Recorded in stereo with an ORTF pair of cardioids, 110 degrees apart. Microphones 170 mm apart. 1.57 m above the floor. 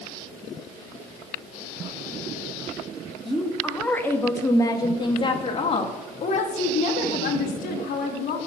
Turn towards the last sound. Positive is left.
turn(degrees=65)